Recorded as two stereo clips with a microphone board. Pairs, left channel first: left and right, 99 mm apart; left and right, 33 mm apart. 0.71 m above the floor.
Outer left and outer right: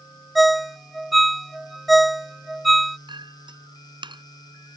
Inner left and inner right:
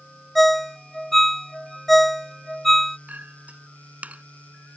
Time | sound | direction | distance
0.3 | a ringtone | centre (ahead or behind) | ?
3.1 | a clink | 55° right (ahead or behind) | ?